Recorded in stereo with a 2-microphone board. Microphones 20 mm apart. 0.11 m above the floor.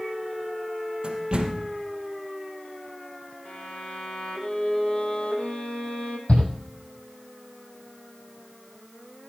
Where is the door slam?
40° right (ahead or behind), 3 m.